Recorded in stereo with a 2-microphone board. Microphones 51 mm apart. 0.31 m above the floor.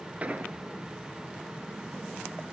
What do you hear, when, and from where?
0.2 s an explosion: 25° right (ahead or behind), 1.0 m